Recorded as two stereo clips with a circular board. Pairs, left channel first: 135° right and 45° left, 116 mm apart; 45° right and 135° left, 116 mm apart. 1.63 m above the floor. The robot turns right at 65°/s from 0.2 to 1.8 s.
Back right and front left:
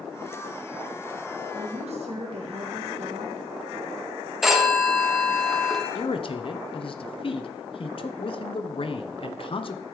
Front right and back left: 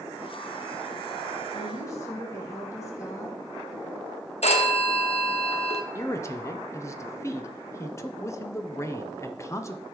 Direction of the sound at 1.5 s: Straight ahead.